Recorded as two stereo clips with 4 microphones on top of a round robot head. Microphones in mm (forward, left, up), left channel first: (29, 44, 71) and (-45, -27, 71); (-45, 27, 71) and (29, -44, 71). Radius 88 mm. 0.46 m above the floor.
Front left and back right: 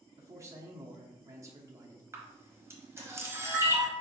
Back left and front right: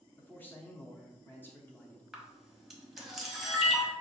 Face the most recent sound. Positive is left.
turn(degrees=-125)